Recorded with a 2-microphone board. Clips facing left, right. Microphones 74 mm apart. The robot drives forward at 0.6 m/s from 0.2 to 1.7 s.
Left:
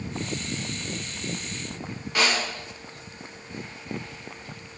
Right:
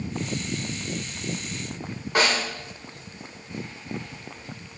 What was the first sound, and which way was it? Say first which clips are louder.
A snare drum: right 2 dB; 30° right (ahead or behind).